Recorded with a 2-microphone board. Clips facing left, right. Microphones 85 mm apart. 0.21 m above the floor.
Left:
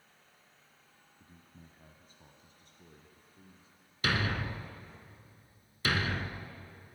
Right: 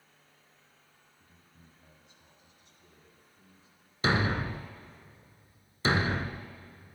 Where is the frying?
I don't hear frying.